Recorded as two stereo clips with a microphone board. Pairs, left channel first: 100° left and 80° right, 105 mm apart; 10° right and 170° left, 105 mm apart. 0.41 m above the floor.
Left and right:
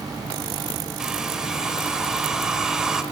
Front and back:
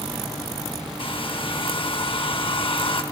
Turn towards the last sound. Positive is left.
turn(degrees=5)